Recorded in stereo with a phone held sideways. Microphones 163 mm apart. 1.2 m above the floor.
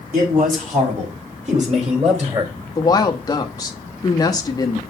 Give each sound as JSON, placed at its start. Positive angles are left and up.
{"t": 0.1, "sound": "a man speaking", "side_deg": -65, "distance_m": 3.5}
{"t": 2.8, "sound": "a woman speaking", "side_deg": 25, "distance_m": 1.1}